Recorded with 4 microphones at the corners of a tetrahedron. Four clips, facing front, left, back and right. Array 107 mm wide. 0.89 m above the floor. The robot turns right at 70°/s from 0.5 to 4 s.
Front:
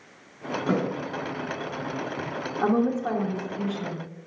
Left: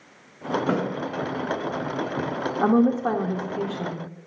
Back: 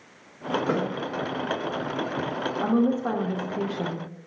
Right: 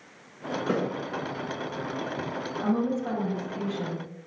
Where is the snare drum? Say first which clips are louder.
Left 2 dB, front 2 dB; 65° left, 5 m; by 0.8 s 70° left, 5 m.